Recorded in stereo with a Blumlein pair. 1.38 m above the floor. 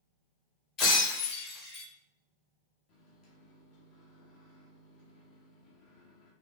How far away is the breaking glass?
About 1.8 m.